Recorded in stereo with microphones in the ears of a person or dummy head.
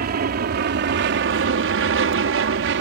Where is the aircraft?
45° right (ahead or behind); by 2.8 s 60° right (ahead or behind).